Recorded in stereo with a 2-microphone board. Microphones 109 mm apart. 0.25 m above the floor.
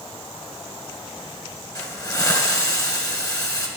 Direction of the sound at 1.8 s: 35° left (ahead or behind).